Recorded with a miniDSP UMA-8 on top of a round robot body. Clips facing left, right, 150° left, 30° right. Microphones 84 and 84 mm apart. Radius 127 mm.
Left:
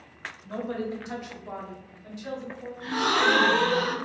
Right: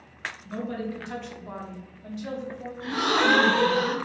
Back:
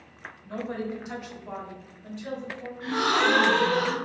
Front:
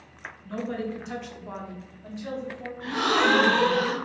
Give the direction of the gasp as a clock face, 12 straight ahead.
5 o'clock.